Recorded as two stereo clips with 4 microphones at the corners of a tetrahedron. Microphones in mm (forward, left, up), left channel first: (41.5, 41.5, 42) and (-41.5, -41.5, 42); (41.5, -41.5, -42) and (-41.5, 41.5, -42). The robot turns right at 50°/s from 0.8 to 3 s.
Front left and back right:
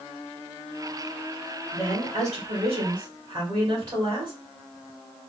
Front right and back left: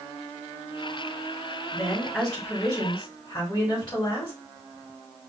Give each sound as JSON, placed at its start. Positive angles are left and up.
{"t": 1.7, "sound": "a woman speaking", "azimuth_deg": -160, "distance_m": 2.5}